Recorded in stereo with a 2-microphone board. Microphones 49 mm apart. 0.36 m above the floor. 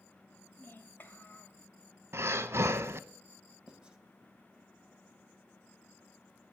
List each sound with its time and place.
0.5 s a child speaking: 40° left (ahead or behind), 1.3 m
2.1 s breathing: 65° right (ahead or behind), 0.6 m
3.7 s writing: 20° right (ahead or behind), 1.2 m